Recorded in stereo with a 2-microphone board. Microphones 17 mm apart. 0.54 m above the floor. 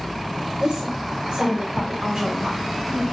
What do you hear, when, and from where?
0.6 s a woman speaking: 60° right (ahead or behind), 2.5 m; by 3.0 s 25° right (ahead or behind), 1.5 m